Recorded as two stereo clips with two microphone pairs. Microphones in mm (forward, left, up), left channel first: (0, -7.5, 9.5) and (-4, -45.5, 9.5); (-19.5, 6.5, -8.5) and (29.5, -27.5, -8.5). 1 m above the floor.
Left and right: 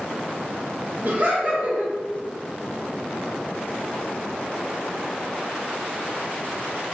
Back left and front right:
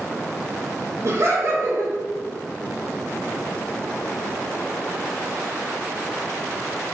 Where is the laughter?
60° right, 1.1 m.